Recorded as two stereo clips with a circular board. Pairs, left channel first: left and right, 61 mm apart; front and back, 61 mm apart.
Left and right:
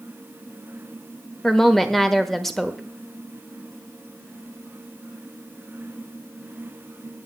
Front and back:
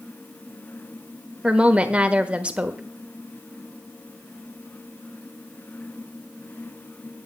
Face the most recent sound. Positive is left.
turn(degrees=165)